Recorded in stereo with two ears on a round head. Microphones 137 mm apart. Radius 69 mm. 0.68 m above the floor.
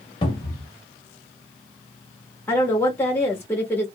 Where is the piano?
No piano in this recording.